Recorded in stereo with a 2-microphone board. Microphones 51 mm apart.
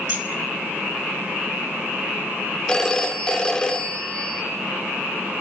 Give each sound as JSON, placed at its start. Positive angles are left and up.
{"t": 0.1, "sound": "keys jangling", "side_deg": -35, "distance_m": 1.7}
{"t": 2.7, "sound": "a phone ringing", "side_deg": 15, "distance_m": 0.9}